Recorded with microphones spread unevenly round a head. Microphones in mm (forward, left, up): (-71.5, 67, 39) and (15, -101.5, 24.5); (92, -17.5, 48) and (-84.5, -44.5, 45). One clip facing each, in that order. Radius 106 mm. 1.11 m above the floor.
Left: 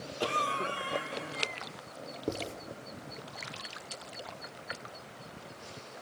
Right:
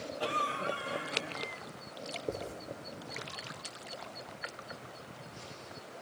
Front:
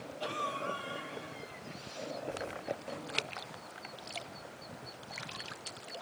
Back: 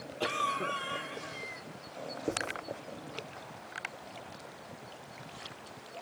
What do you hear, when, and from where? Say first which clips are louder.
0.2 s a cough: left 3 dB, back 3 dB; 155° left, 3 m
2.3 s writing: left 3 dB, back 9 dB; 140° left, 8 m